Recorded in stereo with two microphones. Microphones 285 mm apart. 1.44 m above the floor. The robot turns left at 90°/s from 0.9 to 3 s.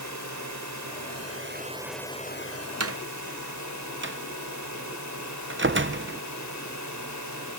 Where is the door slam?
60° right (ahead or behind); by 6.2 s 45° right (ahead or behind).